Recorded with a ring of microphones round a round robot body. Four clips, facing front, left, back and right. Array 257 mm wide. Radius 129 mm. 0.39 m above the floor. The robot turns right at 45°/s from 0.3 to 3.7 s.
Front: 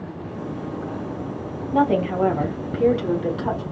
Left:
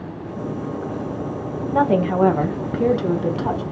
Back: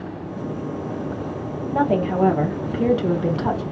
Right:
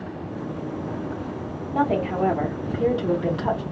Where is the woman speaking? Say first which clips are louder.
Left 5 dB, front 1 dB; 65° left, 1.4 m; by 3.6 s 155° left, 1.4 m.